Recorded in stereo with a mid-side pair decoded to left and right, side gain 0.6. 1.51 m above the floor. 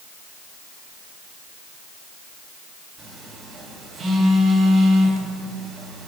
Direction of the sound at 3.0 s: 45° right.